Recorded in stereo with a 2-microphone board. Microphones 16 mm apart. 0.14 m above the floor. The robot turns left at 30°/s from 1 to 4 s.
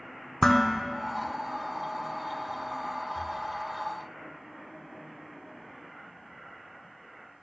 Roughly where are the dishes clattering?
Left.